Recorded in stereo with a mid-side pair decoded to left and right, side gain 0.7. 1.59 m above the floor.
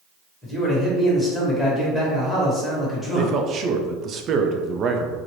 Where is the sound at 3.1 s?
40° right, 0.6 m.